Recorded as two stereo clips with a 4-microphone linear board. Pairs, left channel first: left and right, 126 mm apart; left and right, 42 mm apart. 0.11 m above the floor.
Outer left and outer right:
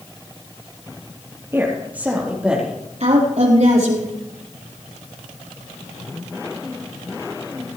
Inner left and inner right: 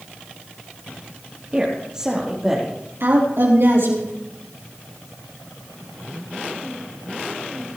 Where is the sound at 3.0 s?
65° right (ahead or behind), 4 m.